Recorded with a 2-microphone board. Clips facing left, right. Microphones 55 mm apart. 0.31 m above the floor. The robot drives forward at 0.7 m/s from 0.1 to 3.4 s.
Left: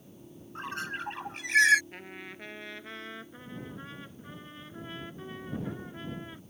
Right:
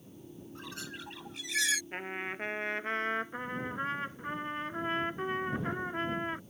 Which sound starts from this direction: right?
A trumpet, at 1.9 s.